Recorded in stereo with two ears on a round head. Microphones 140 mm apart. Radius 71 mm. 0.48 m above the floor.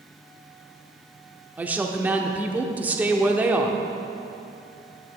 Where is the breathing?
No breathing in this recording.